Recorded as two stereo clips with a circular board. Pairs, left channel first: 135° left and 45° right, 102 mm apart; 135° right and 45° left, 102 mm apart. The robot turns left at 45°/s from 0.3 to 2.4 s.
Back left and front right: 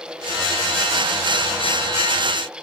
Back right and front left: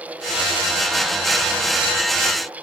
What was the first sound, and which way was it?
Only background noise.